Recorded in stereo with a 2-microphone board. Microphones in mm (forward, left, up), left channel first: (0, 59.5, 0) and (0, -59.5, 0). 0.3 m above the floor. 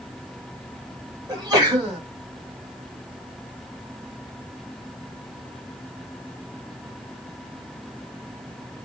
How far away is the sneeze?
About 1.3 m.